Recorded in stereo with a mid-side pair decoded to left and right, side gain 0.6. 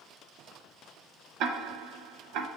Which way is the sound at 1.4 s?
65° right.